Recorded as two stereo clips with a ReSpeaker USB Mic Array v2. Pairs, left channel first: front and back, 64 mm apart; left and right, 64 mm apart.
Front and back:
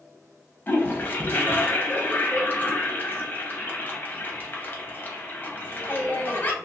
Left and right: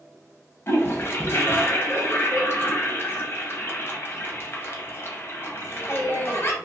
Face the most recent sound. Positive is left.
turn(degrees=55)